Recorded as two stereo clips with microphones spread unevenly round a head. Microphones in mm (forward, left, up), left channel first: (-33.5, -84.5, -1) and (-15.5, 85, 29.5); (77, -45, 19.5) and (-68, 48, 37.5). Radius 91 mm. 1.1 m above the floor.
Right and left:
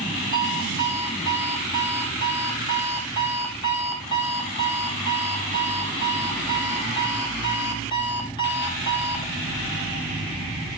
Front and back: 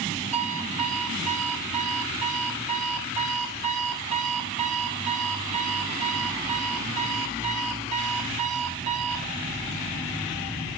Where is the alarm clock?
160° right, 3 m.